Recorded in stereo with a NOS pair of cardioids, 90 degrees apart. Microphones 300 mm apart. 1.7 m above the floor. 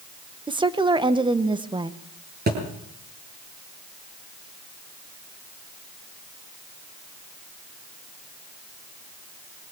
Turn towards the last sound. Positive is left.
turn(degrees=-35)